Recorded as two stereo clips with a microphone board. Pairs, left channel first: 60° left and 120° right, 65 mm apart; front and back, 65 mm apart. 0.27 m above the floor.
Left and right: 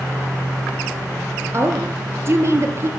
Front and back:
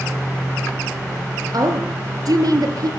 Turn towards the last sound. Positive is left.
turn(degrees=-165)